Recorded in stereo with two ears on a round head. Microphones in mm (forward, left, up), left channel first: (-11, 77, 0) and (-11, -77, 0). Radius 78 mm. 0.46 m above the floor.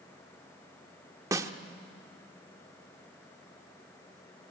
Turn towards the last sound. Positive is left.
turn(degrees=-20)  # may be behind; listen again after turning